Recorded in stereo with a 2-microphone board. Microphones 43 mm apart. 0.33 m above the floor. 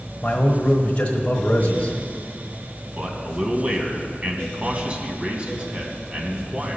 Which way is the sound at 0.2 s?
25° left (ahead or behind).